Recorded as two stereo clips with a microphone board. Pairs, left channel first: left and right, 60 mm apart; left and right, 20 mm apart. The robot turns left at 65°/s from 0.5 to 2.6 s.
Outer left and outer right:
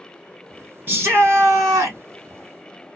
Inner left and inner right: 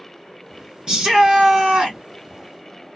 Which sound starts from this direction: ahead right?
A shout, at 0.9 s.